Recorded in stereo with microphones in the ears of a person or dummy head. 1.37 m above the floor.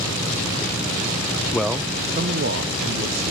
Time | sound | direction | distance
1.5 | a man speaking | 10° left (ahead or behind) | 0.5 m